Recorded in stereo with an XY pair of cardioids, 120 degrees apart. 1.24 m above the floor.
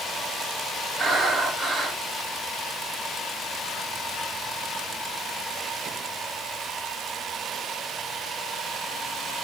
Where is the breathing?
25° right, 2.0 m.